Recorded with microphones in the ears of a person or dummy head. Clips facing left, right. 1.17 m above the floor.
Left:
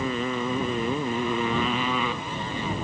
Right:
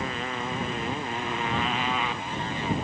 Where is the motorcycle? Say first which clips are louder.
Left 5 dB; 85° left; by 2.8 s 90° left.